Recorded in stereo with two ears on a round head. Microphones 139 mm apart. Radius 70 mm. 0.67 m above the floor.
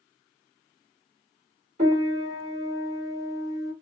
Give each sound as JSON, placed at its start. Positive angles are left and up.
{"t": 1.8, "sound": "a piano", "side_deg": -50, "distance_m": 1.6}